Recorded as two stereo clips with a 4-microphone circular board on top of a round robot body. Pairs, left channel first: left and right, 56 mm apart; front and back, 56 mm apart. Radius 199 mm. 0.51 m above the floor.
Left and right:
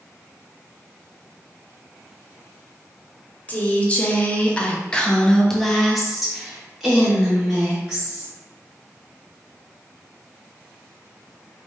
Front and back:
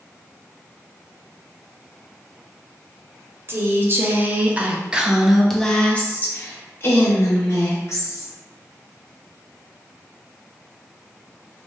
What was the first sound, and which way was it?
A woman speaking, 150° left.